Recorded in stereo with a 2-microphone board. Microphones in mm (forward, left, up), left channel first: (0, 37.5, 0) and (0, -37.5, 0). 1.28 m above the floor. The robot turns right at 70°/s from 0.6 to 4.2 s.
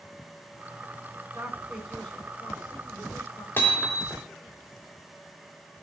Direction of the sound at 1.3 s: 35° right.